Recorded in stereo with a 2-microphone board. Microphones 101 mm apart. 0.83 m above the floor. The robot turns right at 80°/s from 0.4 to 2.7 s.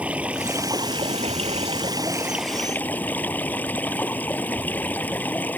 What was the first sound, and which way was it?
Running water, 165° right.